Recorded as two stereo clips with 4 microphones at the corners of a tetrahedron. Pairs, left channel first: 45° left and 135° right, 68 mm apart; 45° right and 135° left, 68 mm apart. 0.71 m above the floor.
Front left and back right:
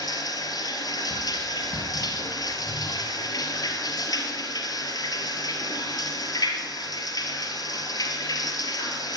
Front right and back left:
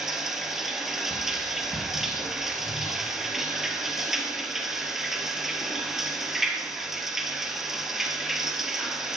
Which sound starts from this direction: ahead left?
Running water, at 0.0 s.